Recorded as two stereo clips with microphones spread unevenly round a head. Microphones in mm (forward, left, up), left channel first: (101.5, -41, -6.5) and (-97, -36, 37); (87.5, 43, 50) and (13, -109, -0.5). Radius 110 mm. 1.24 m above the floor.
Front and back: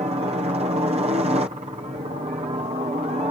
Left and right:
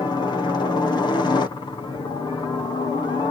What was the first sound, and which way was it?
A helicopter, 135° left.